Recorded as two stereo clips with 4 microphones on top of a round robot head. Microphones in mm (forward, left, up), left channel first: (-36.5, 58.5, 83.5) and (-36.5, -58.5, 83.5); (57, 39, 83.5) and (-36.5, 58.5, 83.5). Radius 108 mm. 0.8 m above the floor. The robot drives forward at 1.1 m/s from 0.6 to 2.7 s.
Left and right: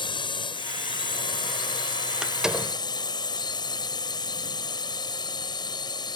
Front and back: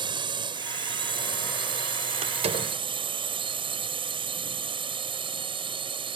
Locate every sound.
0.0 s a drone: 135° left; by 6.2 s 140° left
2.2 s a door slam: 175° right